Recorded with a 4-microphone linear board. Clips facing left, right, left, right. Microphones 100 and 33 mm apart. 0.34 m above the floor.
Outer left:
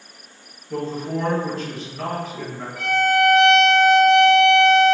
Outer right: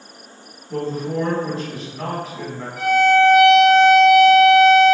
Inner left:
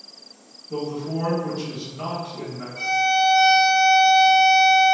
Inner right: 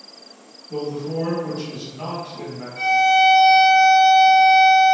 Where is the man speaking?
Centre (ahead or behind), 1.7 m.